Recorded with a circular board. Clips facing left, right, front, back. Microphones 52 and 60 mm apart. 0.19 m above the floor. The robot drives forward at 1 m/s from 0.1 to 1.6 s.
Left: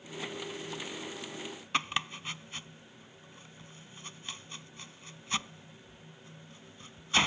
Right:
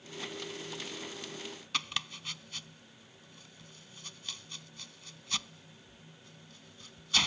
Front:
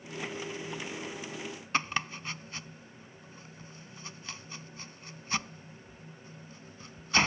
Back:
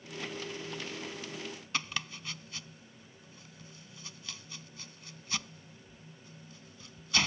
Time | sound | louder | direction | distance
1.7 | chopping | left 5 dB, front 6 dB | 35° left | ?